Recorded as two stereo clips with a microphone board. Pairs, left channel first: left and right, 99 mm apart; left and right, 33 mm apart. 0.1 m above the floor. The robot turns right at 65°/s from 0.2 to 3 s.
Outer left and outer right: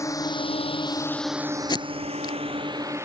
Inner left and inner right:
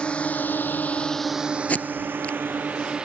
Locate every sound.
0.0 s a drone: 30° left (ahead or behind); by 3.0 s 25° right (ahead or behind)
1.7 s tape being pulled: 50° left (ahead or behind); by 2.4 s 45° left (ahead or behind)